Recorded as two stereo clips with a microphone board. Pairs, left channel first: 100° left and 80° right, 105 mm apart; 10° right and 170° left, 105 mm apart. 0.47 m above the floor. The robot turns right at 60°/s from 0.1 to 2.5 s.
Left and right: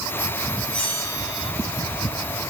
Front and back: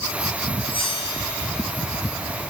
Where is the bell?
15° left, 8.5 m; by 1.5 s 65° left, 8.5 m.